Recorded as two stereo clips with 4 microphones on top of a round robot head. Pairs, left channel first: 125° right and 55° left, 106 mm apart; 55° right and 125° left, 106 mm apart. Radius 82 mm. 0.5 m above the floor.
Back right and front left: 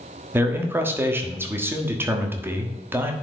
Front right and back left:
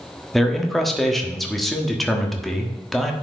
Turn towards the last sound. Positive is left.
turn(degrees=30)